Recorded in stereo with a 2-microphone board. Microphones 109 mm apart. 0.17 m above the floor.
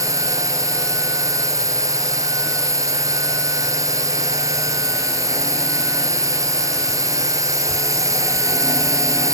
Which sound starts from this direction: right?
A drone, at 0.0 s.